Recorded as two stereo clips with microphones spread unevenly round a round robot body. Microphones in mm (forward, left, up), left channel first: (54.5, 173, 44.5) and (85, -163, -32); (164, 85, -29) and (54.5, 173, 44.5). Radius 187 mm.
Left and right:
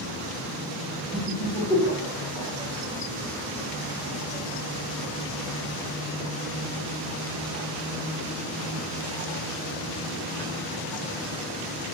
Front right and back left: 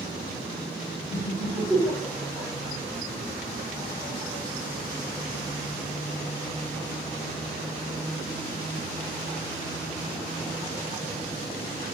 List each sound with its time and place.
1.1 s laughter: 175° right, 1.6 m; by 2.5 s 5° left, 1.2 m